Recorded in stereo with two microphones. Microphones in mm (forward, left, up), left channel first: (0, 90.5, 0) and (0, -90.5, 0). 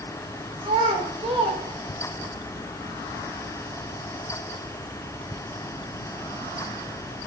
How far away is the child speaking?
About 0.8 m.